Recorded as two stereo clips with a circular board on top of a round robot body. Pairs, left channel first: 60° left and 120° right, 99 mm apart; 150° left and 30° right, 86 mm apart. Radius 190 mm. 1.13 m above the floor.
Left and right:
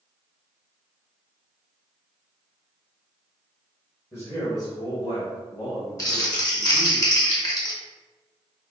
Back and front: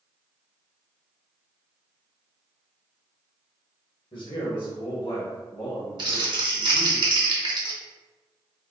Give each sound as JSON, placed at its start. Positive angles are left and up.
{"t": 4.1, "sound": "a man speaking", "azimuth_deg": 125, "distance_m": 1.8}
{"t": 6.0, "sound": "crumpling", "azimuth_deg": 5, "distance_m": 1.5}